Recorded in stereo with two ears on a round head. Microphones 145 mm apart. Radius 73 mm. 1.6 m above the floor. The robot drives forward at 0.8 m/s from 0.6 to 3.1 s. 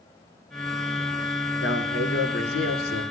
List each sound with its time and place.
1.6 s a man speaking: 80° left, 4.5 m; by 3.0 s 70° left (ahead or behind), 4.5 m